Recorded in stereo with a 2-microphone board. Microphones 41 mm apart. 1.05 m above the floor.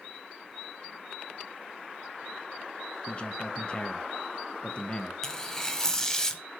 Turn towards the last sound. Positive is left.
turn(degrees=15)  # may be behind; listen again after turning